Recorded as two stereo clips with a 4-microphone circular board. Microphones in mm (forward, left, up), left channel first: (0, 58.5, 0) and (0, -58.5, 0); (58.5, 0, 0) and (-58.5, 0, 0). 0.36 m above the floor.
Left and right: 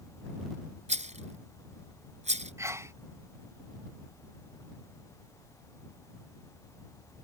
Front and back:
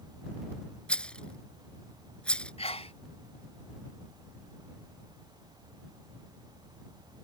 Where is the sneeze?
25° right.